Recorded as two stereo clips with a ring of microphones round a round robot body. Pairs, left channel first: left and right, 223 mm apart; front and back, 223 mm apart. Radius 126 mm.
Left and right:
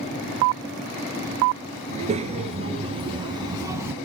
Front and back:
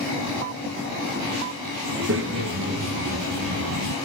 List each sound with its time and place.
1.9 s a child speaking: 150° right, 4.5 m; by 4.0 s 170° right, 2.0 m